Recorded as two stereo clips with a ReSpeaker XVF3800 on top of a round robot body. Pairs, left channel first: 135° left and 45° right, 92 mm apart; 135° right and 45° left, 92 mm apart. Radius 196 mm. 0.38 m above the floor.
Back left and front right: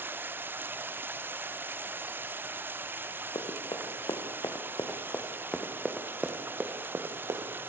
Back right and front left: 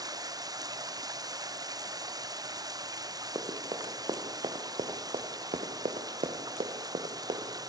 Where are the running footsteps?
95° left, 3 m; by 7.5 s 10° left, 2.5 m.